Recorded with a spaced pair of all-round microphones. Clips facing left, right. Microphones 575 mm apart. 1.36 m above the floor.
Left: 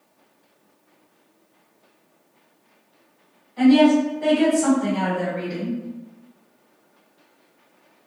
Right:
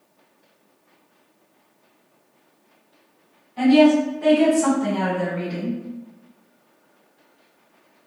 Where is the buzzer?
No buzzer in this recording.